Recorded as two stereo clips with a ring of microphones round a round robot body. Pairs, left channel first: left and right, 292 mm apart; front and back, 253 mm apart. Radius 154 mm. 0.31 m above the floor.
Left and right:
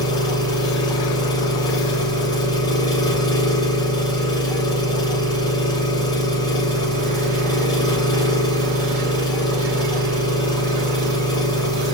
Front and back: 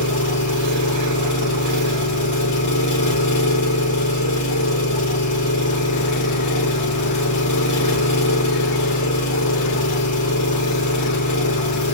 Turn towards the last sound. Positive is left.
turn(degrees=15)